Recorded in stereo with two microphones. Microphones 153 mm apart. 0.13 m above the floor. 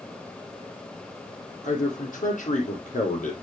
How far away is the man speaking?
About 4 m.